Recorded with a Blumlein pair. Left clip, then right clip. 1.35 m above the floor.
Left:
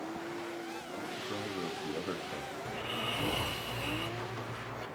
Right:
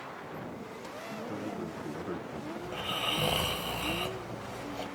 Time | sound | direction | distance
1.2 | a man speaking | 15° left | 0.7 m
2.6 | snoring | 45° right | 1.1 m